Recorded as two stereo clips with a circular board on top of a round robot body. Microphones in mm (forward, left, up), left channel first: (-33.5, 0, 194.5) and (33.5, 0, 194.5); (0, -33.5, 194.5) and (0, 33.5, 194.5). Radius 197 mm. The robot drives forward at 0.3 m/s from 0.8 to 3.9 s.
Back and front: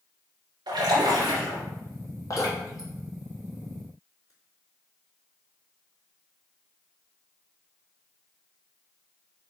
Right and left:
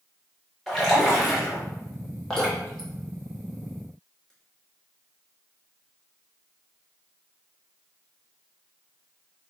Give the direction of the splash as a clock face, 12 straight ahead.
12 o'clock.